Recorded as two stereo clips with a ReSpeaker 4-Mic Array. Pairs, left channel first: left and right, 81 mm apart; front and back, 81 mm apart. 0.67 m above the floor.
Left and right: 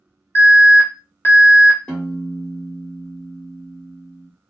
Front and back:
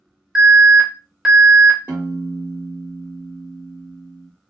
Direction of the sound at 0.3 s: 105° left.